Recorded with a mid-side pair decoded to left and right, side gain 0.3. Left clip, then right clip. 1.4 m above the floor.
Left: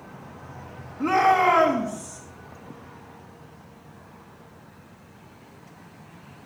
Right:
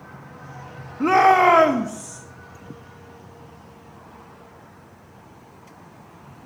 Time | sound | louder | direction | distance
1.0 | a shout | right 4 dB | 60° right | 0.8 m